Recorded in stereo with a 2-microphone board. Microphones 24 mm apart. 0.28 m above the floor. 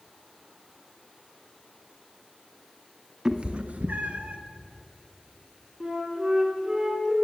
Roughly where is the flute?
Centre.